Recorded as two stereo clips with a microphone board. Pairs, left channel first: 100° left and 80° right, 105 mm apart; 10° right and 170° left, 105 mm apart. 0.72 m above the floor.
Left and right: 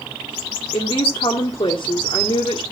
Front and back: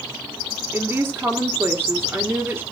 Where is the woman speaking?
105° left, 1.9 m.